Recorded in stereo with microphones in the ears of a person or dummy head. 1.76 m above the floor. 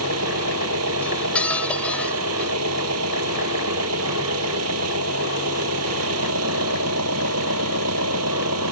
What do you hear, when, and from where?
0.0 s an engine running: 90° right
1.0 s cutlery clinking: 5° left (ahead or behind)